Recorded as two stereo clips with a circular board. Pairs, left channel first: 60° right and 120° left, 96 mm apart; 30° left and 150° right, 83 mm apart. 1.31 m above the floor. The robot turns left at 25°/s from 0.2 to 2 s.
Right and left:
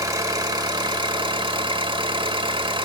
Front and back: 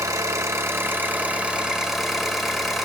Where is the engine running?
170° left, 1.9 m; by 2.9 s 125° left, 1.9 m.